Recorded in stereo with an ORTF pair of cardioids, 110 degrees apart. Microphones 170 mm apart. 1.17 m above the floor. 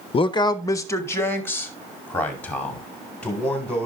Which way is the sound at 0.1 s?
35° left.